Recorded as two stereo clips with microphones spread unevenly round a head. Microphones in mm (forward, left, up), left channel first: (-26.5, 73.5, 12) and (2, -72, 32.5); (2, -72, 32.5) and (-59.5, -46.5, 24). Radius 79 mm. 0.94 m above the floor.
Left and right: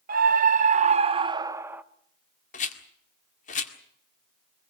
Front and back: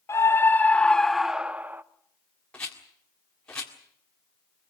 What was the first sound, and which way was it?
A scream, 65° right.